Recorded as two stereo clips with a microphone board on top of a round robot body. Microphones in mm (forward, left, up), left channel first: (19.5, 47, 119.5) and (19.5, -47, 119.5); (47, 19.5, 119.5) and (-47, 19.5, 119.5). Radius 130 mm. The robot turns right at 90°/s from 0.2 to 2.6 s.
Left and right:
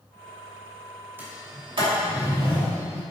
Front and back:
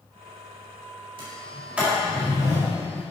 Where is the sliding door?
155° right, 3 m; by 3.0 s 30° right, 3 m.